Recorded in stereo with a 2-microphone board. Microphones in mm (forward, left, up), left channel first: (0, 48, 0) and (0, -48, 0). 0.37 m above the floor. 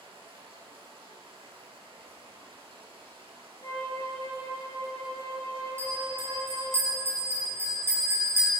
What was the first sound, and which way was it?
Running water, 65° right (ahead or behind).